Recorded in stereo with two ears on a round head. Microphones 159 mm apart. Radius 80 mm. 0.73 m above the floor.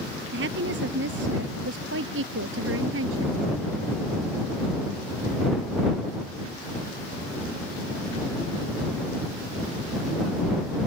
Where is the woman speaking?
75° right (ahead or behind); by 3.5 s 85° right.